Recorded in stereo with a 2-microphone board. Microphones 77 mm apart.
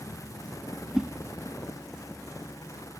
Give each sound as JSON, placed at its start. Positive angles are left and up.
{"t": 0.9, "sound": "a whoosh", "side_deg": -5, "distance_m": 0.7}